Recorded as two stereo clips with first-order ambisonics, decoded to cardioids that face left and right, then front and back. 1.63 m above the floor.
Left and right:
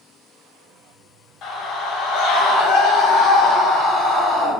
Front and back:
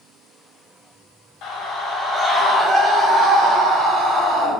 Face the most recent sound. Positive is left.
turn(degrees=150)